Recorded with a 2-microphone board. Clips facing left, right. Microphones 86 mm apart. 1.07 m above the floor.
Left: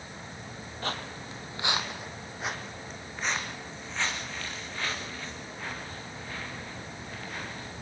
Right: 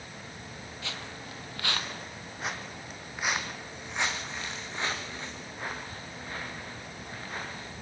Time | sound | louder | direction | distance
0.8 | footsteps | left 7 dB | 45° left (ahead or behind) | 1.8 m